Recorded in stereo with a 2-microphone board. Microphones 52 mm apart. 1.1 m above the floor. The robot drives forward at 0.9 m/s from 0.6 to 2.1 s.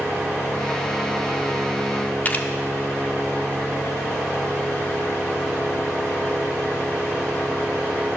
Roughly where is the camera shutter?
Left.